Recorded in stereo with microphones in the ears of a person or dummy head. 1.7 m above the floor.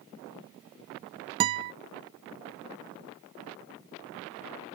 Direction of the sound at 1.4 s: 20° right (ahead or behind).